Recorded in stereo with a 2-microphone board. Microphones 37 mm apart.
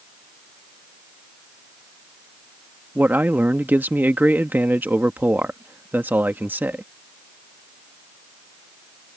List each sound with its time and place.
3.0 s a man speaking: 65° right (ahead or behind)